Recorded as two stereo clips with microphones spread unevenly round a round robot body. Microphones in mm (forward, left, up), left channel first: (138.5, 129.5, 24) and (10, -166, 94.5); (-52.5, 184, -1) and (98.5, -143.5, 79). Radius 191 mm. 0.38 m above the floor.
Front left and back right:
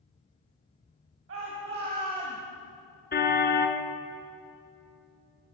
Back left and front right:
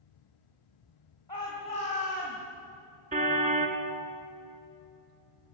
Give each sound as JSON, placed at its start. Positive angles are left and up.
{"t": 1.3, "sound": "a shout", "azimuth_deg": -170, "distance_m": 3.0}
{"t": 3.1, "sound": "a car horn", "azimuth_deg": 5, "distance_m": 2.5}